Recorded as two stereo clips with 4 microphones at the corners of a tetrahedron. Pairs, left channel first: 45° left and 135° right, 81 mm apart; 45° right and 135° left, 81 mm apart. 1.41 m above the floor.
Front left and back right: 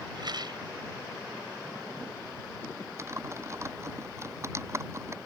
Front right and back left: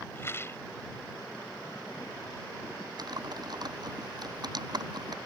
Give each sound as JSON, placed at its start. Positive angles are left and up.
{"t": 0.1, "sound": "a rattle", "azimuth_deg": -105}
{"t": 3.0, "sound": "typing on a keyboard", "azimuth_deg": 170}